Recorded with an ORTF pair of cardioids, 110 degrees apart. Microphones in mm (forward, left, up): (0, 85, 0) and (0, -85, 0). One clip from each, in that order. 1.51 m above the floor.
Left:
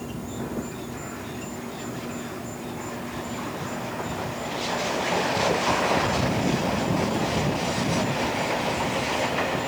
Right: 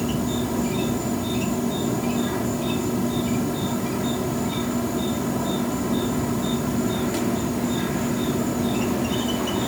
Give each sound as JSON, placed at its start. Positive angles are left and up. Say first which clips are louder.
{"t": 0.0, "sound": "an insect", "louder": "right 8 dB", "azimuth_deg": -60}